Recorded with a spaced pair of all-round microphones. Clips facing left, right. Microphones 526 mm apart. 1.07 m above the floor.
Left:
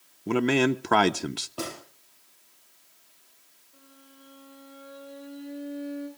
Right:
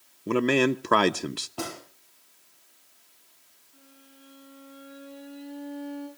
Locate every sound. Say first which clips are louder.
0.3 s a man speaking: even; 5° left (ahead or behind), 0.5 m
1.6 s a gunshot: even; 10° right (ahead or behind), 3 m
3.7 s a violin: left 1 dB; 15° right (ahead or behind), 7.5 m